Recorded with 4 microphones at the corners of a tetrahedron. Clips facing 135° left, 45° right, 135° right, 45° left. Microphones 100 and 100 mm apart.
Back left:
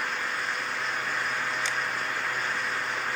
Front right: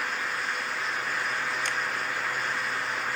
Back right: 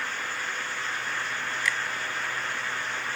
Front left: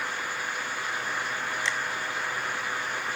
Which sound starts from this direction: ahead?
A finger snap, at 1.6 s.